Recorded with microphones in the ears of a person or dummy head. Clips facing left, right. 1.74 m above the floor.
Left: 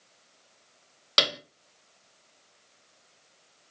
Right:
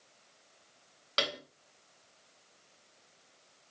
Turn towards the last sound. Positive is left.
turn(degrees=55)  # may be behind; listen again after turning